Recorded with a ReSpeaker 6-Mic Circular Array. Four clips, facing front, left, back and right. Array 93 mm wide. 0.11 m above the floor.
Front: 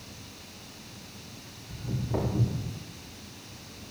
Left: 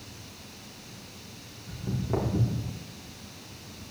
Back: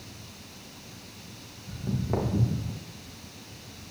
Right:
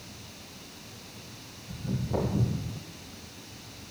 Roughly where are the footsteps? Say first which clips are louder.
Left 1 dB, back 3 dB; behind left.